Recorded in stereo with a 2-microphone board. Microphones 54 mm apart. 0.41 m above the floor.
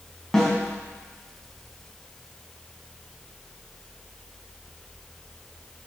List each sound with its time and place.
0.3 s a snare drum: 5° left (ahead or behind), 3 m